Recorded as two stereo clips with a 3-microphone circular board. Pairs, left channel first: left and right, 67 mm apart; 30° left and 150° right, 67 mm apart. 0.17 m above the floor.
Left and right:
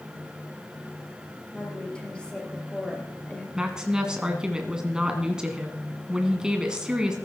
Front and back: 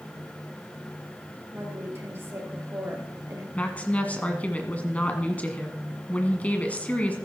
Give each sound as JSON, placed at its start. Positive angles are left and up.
{"t": 1.5, "sound": "a woman speaking", "azimuth_deg": 165, "distance_m": 4.0}
{"t": 3.5, "sound": "a woman speaking", "azimuth_deg": -20, "distance_m": 1.6}